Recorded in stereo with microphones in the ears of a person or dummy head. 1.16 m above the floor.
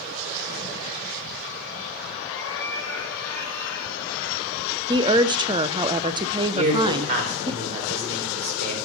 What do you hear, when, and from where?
2.2 s a cat meowing: 15° left (ahead or behind), 4.5 m; by 4.7 s 10° left (ahead or behind), 5.5 m
4.9 s a woman speaking: 20° right (ahead or behind), 0.6 m
6.5 s a man speaking: 40° right (ahead or behind), 5 m